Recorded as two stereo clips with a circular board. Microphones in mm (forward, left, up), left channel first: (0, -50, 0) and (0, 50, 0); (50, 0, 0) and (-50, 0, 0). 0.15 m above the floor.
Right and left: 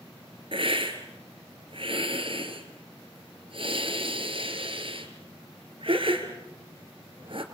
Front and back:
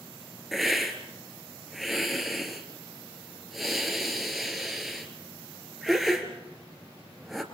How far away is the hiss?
About 3 m.